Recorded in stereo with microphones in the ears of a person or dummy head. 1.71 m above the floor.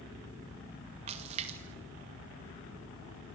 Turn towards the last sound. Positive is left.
turn(degrees=-35)  # may be behind; listen again after turning